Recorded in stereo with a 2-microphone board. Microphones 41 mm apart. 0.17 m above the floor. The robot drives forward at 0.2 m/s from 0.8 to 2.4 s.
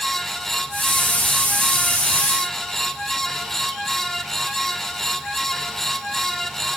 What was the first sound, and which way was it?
Only background noise.